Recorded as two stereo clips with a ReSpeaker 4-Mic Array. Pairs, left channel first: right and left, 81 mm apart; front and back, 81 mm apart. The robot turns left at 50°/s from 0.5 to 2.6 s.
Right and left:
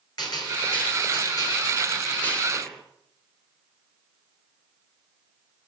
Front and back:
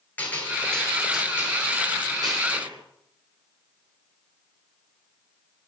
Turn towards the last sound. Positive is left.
turn(degrees=-175)